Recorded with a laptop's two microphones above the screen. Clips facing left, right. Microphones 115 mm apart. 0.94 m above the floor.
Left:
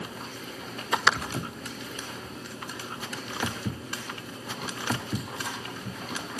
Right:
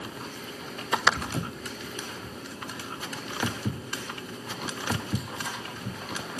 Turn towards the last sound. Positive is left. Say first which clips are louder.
# right 1 dB
turn(degrees=10)  # may be behind; listen again after turning